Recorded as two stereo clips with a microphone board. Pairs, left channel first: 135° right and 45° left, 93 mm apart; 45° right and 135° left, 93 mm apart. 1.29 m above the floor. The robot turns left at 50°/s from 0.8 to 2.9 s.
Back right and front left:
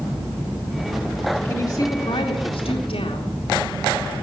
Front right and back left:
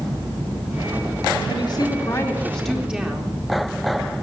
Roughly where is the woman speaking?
Right.